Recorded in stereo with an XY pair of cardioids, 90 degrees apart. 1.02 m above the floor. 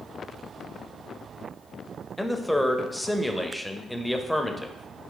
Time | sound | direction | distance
2.2 | a man speaking | 5° left | 0.6 m